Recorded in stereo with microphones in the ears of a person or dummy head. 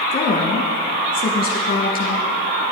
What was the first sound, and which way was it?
A woman speaking, 30° left (ahead or behind).